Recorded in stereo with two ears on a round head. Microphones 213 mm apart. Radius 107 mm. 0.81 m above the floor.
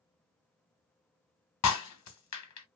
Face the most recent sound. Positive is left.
turn(degrees=75)  # may be behind; listen again after turning